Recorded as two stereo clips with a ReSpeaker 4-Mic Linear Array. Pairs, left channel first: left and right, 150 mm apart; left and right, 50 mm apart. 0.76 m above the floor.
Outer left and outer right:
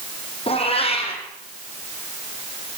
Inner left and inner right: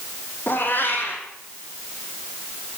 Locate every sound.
0.5 s a cat meowing: 40° left (ahead or behind), 4.5 m